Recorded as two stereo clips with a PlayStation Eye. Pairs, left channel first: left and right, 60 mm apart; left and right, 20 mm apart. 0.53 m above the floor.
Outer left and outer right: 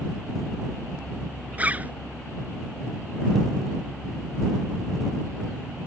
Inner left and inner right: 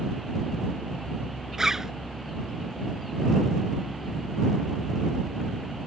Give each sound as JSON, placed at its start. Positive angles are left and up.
{"t": 1.6, "sound": "a zipper", "side_deg": -25}